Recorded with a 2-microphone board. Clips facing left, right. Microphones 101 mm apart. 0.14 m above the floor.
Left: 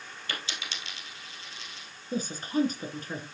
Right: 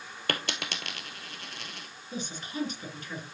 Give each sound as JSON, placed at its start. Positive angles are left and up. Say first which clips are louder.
{"t": 0.3, "sound": "a dropped coin", "louder": "right 6 dB", "side_deg": -60, "distance_m": 1.1}
{"t": 2.1, "sound": "a woman speaking", "louder": "left 8 dB", "side_deg": 40, "distance_m": 1.8}